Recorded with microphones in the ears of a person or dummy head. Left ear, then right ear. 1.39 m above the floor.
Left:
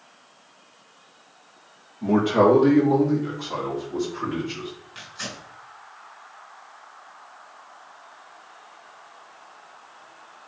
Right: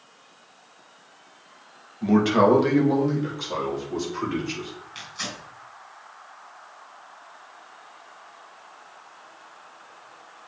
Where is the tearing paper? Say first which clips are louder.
Right 3 dB; 20° right (ahead or behind), 4 m.